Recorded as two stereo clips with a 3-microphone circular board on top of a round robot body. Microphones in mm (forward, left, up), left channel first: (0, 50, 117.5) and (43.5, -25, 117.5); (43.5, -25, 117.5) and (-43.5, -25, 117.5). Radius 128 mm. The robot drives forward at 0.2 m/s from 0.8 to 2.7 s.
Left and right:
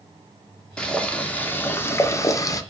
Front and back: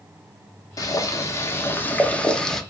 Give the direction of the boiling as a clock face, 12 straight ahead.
11 o'clock.